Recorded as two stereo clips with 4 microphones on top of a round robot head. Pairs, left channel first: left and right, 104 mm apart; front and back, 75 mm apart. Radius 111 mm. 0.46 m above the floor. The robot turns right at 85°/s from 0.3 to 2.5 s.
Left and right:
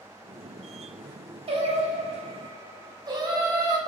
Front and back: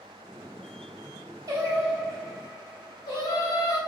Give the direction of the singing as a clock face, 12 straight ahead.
4 o'clock.